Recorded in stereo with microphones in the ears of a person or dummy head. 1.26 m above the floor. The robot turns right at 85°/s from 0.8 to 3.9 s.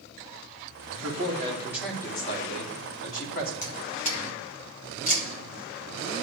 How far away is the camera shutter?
About 1.5 m.